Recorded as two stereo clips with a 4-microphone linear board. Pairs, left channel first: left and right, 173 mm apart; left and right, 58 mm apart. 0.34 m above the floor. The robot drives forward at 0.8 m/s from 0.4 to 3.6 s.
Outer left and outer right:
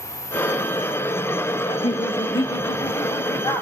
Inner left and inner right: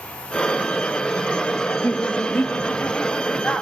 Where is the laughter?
35° left (ahead or behind), 1.2 m; by 3.6 s 20° left (ahead or behind), 2 m.